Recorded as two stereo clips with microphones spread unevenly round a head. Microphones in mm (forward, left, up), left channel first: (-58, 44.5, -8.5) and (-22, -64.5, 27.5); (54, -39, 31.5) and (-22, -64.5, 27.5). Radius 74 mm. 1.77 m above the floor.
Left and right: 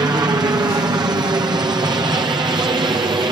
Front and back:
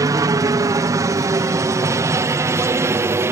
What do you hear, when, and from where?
0.0 s a helicopter: 135° right; by 3.3 s 130° right